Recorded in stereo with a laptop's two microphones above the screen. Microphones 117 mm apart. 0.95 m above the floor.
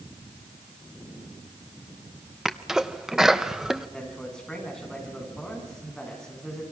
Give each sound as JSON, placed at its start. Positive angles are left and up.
{"t": 2.5, "sound": "a sneeze", "side_deg": -5, "distance_m": 0.7}
{"t": 3.9, "sound": "a man speaking", "side_deg": 5, "distance_m": 9.5}